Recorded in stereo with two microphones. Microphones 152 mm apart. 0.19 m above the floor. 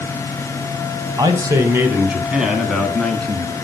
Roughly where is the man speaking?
Right.